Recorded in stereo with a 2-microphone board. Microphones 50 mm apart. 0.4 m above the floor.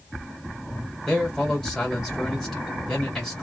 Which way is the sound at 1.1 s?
10° left (ahead or behind).